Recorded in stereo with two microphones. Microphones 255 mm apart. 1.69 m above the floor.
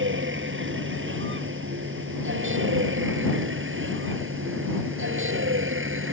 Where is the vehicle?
50° right (ahead or behind).